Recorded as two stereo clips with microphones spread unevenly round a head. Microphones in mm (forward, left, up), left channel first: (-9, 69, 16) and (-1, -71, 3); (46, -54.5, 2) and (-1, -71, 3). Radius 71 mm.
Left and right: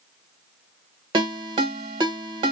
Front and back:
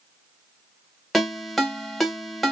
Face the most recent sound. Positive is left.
turn(degrees=-75)